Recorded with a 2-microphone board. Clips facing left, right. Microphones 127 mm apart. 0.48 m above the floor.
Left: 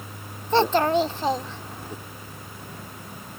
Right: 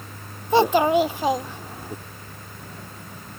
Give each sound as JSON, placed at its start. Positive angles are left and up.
{"t": 0.5, "sound": "a child speaking", "side_deg": -10}